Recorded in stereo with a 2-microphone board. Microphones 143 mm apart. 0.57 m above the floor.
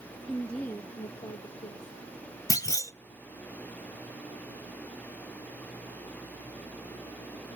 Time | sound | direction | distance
0.3 | a woman speaking | 5° right (ahead or behind) | 0.9 m
2.5 | a clunk | 25° left (ahead or behind) | 0.5 m